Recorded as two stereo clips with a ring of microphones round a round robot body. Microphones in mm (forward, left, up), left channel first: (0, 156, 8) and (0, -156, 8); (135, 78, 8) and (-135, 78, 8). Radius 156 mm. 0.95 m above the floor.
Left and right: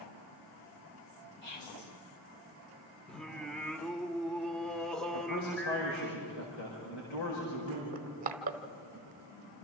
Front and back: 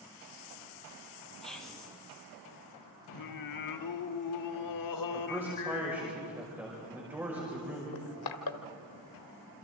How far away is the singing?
About 1.4 m.